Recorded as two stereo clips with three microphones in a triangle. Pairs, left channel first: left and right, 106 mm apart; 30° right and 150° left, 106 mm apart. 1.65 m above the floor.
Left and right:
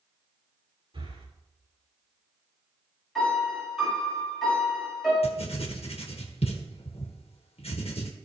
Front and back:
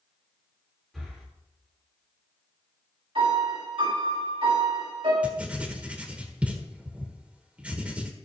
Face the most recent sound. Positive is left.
turn(degrees=75)